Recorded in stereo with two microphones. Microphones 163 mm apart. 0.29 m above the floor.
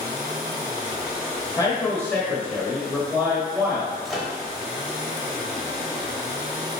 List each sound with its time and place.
1.6 s a man speaking: 20° left (ahead or behind), 1.5 m; by 4.0 s 20° right (ahead or behind), 1.6 m
4.0 s a microwave: centre (ahead or behind), 0.8 m